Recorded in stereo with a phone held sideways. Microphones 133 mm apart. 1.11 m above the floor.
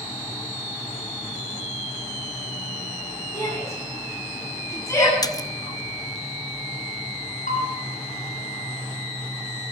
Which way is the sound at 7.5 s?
75° left (ahead or behind).